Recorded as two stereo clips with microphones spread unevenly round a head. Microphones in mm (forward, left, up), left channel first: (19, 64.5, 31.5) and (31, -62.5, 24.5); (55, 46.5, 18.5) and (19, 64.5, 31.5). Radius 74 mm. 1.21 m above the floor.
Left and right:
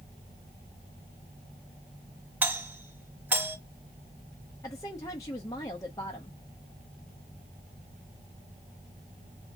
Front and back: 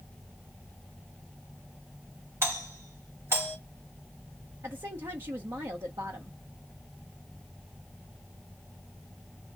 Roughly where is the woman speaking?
Behind.